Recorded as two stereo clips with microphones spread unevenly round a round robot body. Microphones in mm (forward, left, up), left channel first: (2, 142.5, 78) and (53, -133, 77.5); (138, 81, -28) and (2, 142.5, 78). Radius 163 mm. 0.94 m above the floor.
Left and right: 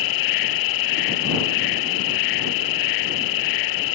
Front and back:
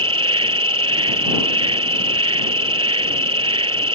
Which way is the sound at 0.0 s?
115° left.